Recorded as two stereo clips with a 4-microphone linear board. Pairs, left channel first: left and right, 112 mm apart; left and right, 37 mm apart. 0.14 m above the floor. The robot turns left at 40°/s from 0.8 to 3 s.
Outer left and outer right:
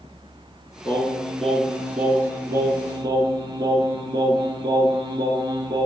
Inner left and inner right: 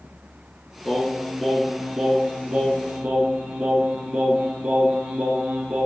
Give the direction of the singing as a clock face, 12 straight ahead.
11 o'clock.